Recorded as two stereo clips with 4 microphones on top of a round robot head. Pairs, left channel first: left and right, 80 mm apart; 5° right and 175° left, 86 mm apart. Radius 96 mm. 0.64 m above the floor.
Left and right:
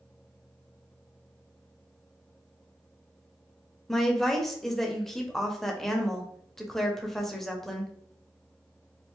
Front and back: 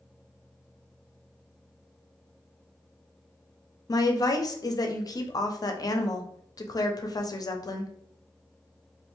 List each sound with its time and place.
3.9 s a woman speaking: 5° left, 0.7 m